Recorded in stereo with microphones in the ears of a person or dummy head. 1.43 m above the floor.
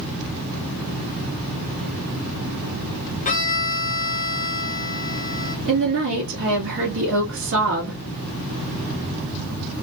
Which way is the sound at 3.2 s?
40° left (ahead or behind).